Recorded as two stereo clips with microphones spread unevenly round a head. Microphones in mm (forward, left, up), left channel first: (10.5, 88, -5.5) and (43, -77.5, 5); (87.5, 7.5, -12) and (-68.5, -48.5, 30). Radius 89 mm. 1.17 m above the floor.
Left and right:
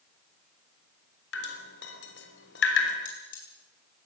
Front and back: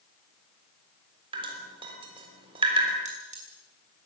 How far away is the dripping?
About 3.5 m.